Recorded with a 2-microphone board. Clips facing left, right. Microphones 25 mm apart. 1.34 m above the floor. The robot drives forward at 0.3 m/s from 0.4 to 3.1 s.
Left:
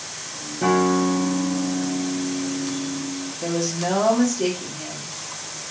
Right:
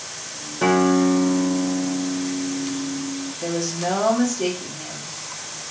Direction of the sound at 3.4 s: Centre (ahead or behind).